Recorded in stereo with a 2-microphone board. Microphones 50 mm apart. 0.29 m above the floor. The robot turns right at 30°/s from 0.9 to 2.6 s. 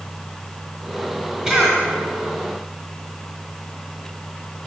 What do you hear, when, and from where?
1.5 s a cough: 15° right (ahead or behind), 1.5 m; by 1.8 s 5° right (ahead or behind), 1.5 m